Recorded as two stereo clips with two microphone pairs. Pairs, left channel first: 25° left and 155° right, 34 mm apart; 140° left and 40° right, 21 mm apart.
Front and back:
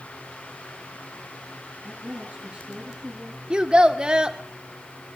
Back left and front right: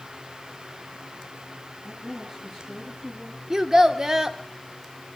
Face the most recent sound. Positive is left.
turn(degrees=-105)